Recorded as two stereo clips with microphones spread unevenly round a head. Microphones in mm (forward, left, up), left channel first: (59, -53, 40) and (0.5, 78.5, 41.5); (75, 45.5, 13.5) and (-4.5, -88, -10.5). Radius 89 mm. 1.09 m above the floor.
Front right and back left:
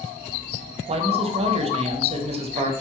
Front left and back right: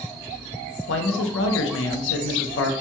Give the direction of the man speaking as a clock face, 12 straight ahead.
10 o'clock.